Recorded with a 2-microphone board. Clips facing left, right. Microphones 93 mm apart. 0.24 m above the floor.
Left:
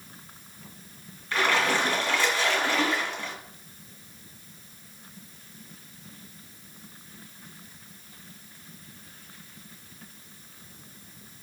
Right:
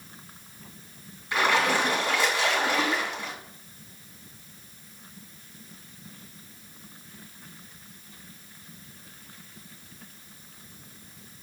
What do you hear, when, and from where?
1.3 s a splash: 15° right (ahead or behind), 1.8 m